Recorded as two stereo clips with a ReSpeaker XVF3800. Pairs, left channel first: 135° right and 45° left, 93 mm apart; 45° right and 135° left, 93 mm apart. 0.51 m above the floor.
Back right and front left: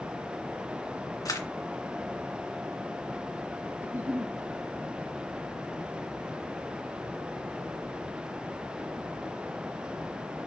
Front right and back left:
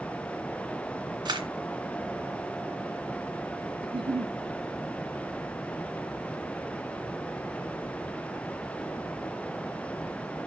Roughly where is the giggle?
Behind left.